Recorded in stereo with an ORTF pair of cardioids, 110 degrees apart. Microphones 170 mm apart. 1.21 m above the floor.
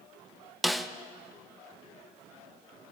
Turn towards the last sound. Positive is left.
turn(degrees=0)